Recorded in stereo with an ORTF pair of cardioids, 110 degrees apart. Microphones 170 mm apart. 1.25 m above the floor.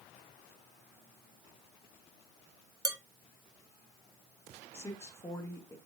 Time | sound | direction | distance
2.9 | dishes clattering | 20° right | 1.4 m
4.7 | a woman speaking | 15° left | 1.8 m